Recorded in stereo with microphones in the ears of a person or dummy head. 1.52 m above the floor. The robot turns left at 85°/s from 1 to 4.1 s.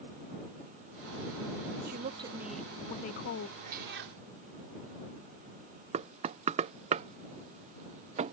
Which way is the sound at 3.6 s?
40° right.